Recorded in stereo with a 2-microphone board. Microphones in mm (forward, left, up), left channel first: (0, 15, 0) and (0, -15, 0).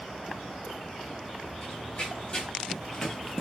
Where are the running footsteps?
40° left (ahead or behind), 1.5 m; by 3.4 s 5° left (ahead or behind), 0.7 m.